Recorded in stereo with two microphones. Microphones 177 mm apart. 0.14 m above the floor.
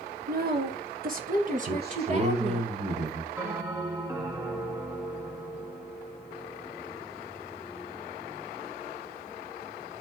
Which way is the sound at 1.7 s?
70° right (ahead or behind).